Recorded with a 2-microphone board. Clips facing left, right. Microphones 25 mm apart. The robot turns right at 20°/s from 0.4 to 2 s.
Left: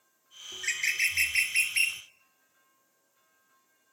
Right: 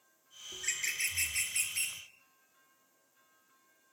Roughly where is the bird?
Left.